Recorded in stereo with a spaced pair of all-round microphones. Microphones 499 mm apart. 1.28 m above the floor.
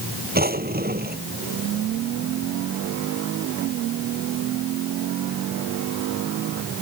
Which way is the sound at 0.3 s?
20° right (ahead or behind).